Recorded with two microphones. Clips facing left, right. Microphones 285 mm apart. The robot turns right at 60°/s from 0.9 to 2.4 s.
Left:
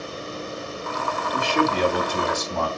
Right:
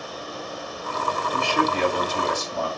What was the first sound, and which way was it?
A man speaking, 15° left.